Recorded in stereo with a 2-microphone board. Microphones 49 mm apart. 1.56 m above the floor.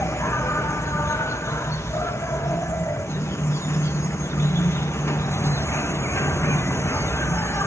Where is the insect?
70° left (ahead or behind), 0.9 m.